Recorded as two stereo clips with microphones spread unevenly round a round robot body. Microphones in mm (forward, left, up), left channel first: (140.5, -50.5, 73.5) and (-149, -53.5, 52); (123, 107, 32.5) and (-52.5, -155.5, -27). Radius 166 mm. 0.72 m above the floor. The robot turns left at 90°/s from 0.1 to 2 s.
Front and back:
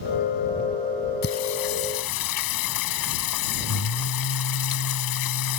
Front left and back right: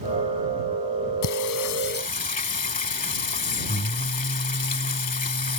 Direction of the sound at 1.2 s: 60° left.